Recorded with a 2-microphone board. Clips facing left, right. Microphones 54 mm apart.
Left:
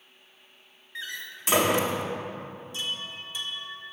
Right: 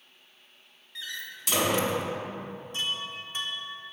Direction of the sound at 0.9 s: 30° left (ahead or behind).